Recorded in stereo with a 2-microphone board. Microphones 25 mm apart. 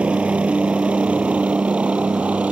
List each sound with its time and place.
0.0 s a helicopter: 60° right (ahead or behind); by 2.5 s 65° right (ahead or behind)